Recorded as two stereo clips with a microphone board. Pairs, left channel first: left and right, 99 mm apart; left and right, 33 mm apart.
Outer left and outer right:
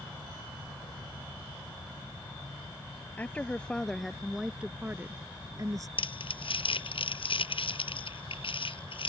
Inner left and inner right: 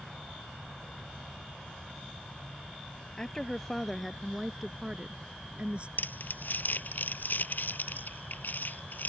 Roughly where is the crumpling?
Left.